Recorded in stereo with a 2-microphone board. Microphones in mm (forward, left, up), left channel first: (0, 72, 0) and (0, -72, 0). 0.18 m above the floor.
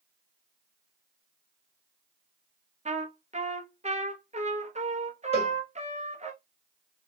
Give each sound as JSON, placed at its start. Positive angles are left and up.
{"t": 2.9, "sound": "a trumpet", "side_deg": -50, "distance_m": 1.1}
{"t": 5.3, "sound": "a cowbell", "side_deg": 45, "distance_m": 1.7}